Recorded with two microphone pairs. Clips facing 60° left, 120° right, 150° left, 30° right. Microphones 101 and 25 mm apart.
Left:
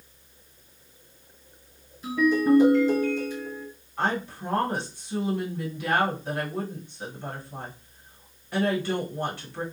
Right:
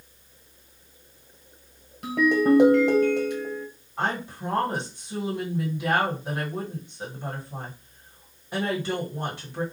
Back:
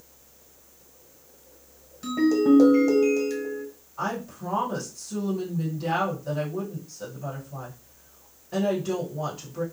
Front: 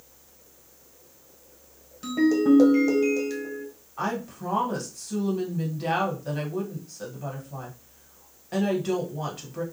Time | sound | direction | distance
2.0 | a ringtone | 110° right | 1.0 m
4.0 | a woman speaking | 45° right | 1.4 m